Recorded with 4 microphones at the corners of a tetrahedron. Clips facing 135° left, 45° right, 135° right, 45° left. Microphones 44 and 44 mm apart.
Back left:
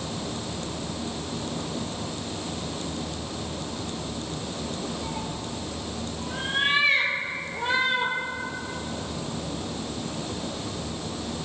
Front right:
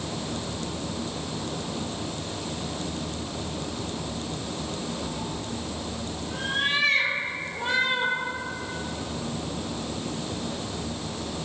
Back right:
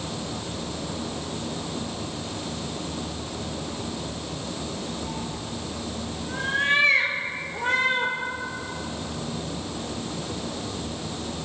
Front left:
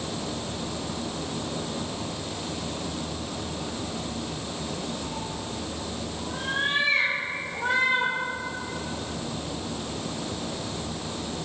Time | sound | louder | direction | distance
5.0 | a cat meowing | even, back right 1 dB | straight behind | 1.3 m